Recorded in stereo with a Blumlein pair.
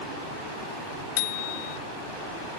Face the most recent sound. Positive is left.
turn(degrees=45)